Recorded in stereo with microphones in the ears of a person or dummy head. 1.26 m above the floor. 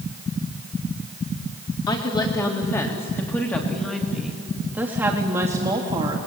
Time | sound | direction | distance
1.9 | a woman speaking | 20° left (ahead or behind) | 3.5 m